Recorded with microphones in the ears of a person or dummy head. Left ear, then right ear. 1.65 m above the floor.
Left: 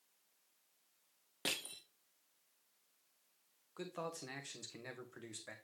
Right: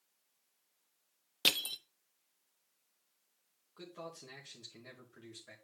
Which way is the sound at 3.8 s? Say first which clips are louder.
Left 3 dB; 25° left (ahead or behind).